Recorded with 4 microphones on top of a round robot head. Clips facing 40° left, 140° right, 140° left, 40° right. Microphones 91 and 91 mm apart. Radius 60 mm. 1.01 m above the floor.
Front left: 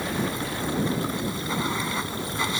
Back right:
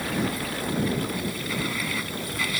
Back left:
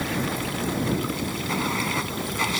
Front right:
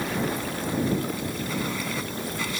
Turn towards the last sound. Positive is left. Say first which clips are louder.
# even, even
turn(degrees=105)